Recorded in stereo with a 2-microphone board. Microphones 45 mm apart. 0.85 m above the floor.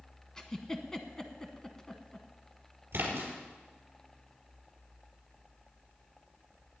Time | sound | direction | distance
0.4 | a giggle | 15° left (ahead or behind) | 1.1 m
2.9 | a splash | 50° right (ahead or behind) | 4 m